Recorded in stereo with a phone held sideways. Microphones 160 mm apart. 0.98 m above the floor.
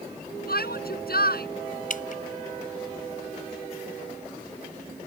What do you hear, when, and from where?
0.5 s a shout: 75° left (ahead or behind)
1.9 s dripping: 55° left (ahead or behind)